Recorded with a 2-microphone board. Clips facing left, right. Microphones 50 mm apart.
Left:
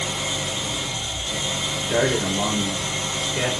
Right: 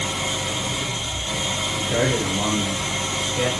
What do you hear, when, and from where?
0.0 s an engine running: 15° right (ahead or behind), 4.5 m
1.8 s a man speaking: 30° left (ahead or behind), 5 m